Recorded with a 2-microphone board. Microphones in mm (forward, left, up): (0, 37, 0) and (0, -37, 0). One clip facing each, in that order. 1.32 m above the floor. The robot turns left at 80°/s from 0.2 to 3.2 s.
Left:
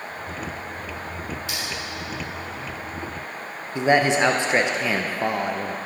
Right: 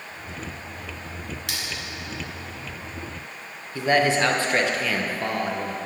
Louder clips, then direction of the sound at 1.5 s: Left 2 dB; 75° right (ahead or behind).